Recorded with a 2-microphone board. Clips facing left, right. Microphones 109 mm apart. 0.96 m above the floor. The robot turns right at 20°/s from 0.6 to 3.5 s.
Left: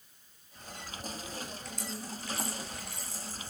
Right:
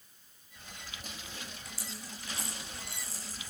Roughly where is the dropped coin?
Centre.